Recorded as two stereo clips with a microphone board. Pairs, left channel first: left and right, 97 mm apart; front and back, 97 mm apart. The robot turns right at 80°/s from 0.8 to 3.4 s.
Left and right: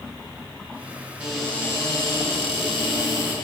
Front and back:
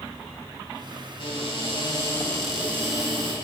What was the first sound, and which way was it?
A cupboard door, 15° right.